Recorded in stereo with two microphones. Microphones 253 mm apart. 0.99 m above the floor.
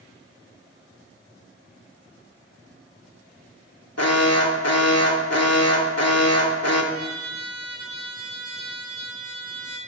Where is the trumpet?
65° left (ahead or behind), 7 m.